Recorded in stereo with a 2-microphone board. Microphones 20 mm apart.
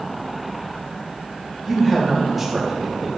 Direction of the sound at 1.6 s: 15° left (ahead or behind).